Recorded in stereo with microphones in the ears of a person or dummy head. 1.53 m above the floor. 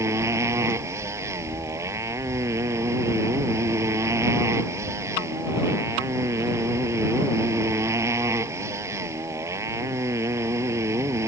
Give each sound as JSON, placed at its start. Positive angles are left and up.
{"t": 0.0, "sound": "a motorcycle", "side_deg": -15}